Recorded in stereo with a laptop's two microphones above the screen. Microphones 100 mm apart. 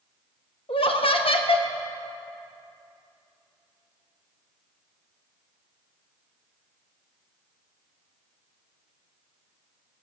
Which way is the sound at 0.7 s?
65° left (ahead or behind).